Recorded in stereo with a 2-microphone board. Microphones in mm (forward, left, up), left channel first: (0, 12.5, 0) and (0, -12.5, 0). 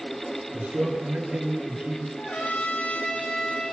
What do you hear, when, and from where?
0.5 s a man speaking: 70° right (ahead or behind), 4.5 m; by 2.1 s 75° right (ahead or behind), 7 m
2.2 s a trumpet: 65° left (ahead or behind), 5 m